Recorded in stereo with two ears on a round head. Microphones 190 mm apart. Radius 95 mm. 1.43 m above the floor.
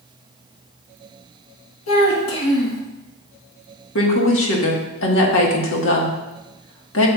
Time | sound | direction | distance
1.9 | a child speaking | 70° left (ahead or behind) | 1.5 m
4.0 | a woman speaking | 70° left (ahead or behind) | 1.7 m